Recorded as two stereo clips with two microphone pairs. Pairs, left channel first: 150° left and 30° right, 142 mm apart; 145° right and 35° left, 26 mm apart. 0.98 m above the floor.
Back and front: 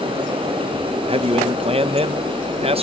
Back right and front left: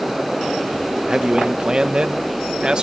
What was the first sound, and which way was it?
A man speaking, 5° right.